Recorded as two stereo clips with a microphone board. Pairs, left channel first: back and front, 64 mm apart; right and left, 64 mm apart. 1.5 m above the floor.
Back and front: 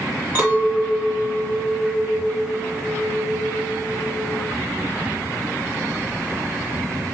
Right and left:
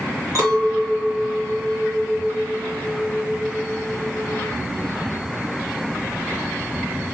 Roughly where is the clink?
Ahead left.